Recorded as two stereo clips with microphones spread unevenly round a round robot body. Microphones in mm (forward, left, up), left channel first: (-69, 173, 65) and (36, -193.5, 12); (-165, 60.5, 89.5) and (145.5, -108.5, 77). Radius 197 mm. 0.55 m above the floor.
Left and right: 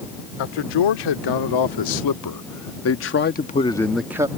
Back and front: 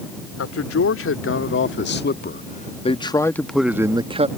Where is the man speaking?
105° left; by 4.3 s 45° right.